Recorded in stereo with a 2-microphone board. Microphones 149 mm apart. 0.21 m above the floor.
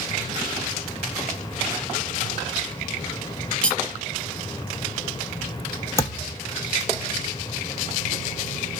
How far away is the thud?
About 1.0 m.